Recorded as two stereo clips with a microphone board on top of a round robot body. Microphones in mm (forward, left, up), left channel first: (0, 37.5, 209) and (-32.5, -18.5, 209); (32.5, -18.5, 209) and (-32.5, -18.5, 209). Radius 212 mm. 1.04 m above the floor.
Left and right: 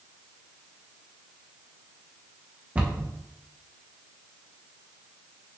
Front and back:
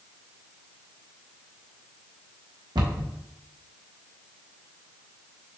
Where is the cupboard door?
175° left, 0.9 m.